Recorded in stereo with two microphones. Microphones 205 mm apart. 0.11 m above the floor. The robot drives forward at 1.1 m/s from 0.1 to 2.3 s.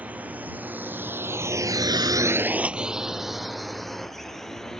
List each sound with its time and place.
0.0 s a drone: 5° right (ahead or behind); by 4.8 s centre (ahead or behind)